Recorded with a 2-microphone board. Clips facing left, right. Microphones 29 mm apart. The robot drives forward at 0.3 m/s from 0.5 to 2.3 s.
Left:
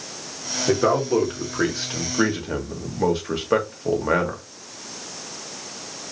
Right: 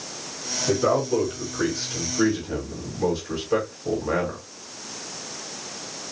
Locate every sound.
0.7 s a man speaking: 45° left (ahead or behind), 1.7 m; by 4.4 s 60° left (ahead or behind), 1.5 m